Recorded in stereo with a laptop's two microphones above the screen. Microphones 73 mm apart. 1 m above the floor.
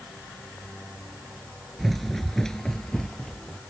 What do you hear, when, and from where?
1.8 s running footsteps: centre (ahead or behind); by 3.6 s 10° left (ahead or behind)